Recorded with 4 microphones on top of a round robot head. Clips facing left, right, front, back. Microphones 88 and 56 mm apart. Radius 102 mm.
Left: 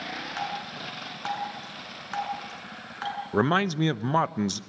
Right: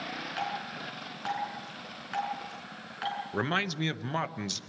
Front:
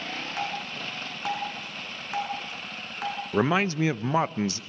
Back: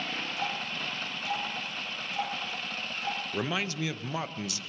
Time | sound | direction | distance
0.4 | dripping | 30° left | 6.5 m
3.3 | a man speaking | 45° left | 0.8 m